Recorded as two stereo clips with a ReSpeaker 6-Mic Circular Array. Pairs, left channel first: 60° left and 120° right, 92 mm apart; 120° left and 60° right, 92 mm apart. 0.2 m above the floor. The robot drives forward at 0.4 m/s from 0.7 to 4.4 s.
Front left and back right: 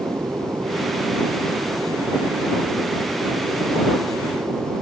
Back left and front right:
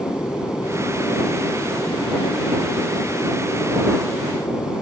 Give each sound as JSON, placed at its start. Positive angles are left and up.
{"t": 0.0, "sound": "an aircraft", "azimuth_deg": 180}